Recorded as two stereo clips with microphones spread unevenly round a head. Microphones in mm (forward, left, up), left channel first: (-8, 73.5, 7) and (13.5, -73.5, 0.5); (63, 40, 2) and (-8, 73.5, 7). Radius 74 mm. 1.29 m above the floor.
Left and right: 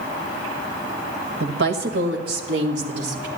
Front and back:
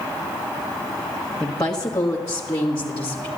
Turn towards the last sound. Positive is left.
turn(degrees=-85)